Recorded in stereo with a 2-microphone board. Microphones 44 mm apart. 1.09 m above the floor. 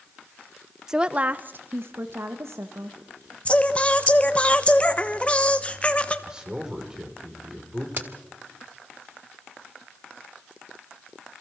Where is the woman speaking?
10° right (ahead or behind), 0.6 m; by 3.4 s 75° right (ahead or behind), 1.9 m.